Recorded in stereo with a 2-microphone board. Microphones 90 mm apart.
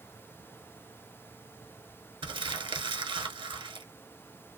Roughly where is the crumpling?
Right.